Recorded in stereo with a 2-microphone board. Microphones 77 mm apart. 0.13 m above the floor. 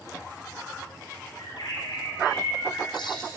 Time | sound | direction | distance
1.4 | a bird | 75° left (ahead or behind) | 4.5 m